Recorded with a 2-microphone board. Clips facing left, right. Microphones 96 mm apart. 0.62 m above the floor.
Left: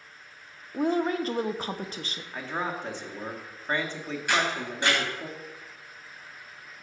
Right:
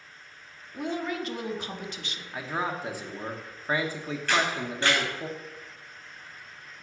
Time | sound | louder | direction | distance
0.7 | a woman speaking | left 6 dB | 35° left (ahead or behind) | 0.6 m
2.3 | a man speaking | right 1 dB | 10° right (ahead or behind) | 0.9 m
4.3 | a camera shutter | even | 15° left (ahead or behind) | 3 m